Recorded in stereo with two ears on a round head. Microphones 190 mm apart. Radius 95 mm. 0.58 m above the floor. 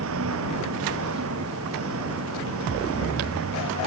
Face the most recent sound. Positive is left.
turn(degrees=-65)  # may be behind; listen again after turning